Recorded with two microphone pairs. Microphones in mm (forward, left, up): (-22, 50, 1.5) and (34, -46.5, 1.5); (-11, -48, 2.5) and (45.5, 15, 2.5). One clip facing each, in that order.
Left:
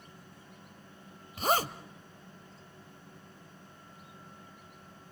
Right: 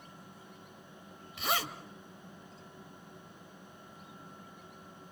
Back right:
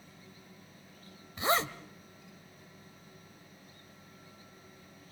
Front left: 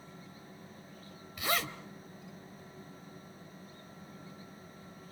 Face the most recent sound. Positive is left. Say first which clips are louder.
# left 6 dB, back right 5 dB
turn(degrees=170)